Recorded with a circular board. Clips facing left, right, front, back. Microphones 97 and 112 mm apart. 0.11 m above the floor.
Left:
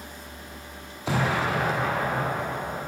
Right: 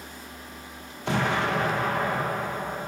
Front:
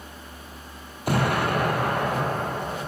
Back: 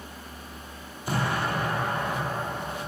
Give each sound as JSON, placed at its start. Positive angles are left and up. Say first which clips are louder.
{"t": 1.1, "sound": "an explosion", "louder": "even, front 5 dB", "azimuth_deg": 0, "distance_m": 1.4}